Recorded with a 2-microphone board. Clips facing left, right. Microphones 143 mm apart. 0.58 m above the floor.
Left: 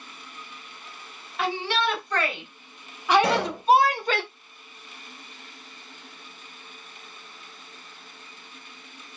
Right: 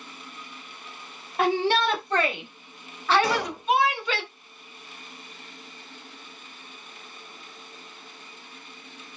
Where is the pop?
60° left (ahead or behind), 3.5 m.